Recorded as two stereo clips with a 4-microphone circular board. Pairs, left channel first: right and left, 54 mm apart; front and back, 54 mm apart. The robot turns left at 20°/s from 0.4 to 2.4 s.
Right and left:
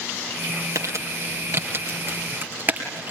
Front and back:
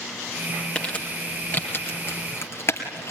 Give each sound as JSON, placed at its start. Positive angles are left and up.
{"t": 0.8, "sound": "crumpling", "azimuth_deg": 70, "distance_m": 3.0}